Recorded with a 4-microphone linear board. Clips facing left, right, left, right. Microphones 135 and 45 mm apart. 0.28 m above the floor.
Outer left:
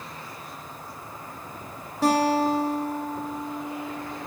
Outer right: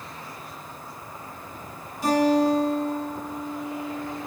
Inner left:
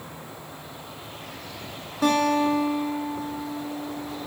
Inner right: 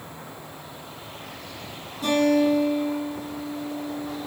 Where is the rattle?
I don't hear a rattle.